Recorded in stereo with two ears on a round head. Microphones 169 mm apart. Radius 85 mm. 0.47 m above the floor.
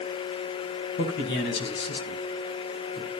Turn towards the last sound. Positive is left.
turn(degrees=65)  # may be behind; listen again after turning